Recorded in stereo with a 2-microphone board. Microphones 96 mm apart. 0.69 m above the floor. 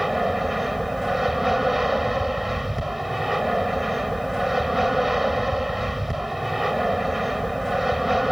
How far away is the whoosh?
I don't hear a whoosh.